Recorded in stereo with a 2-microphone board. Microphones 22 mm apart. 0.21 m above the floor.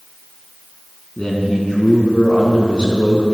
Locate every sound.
1.2 s a man speaking: 40° left (ahead or behind), 1.9 m